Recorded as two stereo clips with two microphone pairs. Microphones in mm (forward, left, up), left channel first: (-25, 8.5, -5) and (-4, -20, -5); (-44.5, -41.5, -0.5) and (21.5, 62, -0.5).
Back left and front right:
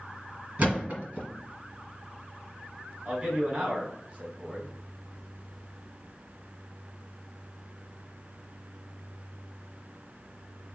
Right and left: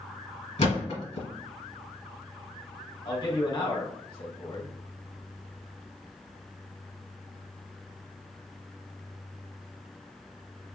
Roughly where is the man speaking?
Right.